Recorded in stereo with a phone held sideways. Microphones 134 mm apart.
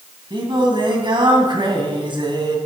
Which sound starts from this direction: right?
Singing, at 0.3 s.